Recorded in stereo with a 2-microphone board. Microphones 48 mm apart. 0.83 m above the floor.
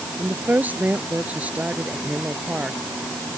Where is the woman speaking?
40° right (ahead or behind); by 2.8 s 25° right (ahead or behind).